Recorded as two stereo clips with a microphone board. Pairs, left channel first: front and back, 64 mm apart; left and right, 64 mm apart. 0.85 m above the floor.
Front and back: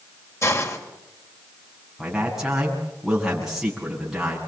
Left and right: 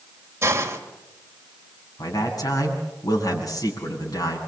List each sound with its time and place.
0.4 s a hiss: 45° right, 2.5 m
2.0 s a man speaking: 95° left, 7 m